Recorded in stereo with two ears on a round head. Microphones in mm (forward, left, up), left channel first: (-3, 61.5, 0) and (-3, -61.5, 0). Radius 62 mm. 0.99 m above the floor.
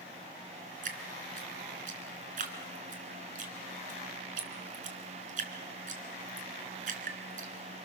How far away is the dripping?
About 3.5 m.